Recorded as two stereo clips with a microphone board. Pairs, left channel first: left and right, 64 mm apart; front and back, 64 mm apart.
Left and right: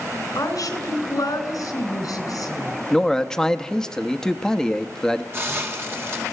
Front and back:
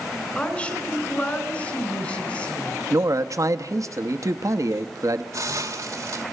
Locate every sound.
0.3 s a woman speaking: 70° left, 3.5 m
2.9 s a man speaking: 170° left, 1.0 m
5.3 s a hiss: 140° right, 2 m